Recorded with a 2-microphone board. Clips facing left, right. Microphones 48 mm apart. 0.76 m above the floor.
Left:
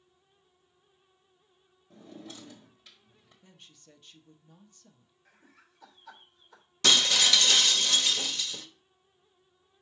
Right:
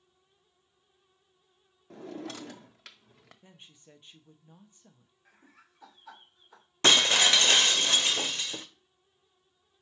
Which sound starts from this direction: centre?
Laughter, at 5.2 s.